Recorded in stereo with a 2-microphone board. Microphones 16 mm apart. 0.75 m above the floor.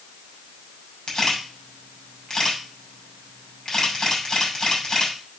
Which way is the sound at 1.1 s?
40° left (ahead or behind).